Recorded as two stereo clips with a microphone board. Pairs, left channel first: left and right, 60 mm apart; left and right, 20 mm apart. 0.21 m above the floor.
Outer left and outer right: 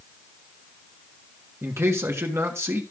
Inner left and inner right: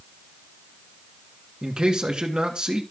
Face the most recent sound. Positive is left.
turn(degrees=-45)  # may be behind; listen again after turning